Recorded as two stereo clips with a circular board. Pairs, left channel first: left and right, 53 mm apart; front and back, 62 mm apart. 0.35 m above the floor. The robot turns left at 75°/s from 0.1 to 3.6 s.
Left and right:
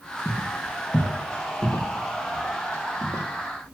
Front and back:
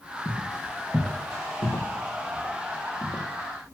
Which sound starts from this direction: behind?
Footsteps, at 0.2 s.